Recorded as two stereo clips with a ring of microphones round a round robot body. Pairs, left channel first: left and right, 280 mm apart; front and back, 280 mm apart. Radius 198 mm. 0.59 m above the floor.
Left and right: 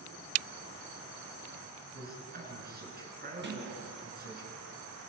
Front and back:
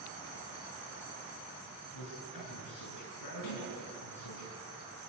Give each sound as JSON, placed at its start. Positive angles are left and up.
{"t": 1.9, "sound": "a man speaking", "azimuth_deg": -35, "distance_m": 8.0}
{"t": 3.4, "sound": "a sliding door", "azimuth_deg": -40, "distance_m": 7.0}